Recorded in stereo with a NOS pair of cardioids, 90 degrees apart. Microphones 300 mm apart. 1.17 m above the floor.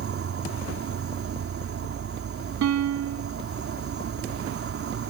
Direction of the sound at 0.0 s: 50° right.